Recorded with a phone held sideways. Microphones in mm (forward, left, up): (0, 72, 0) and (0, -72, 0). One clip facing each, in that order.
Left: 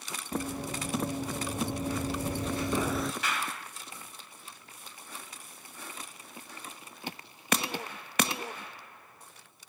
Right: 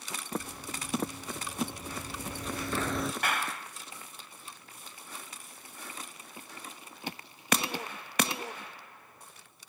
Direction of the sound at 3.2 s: 55° right (ahead or behind).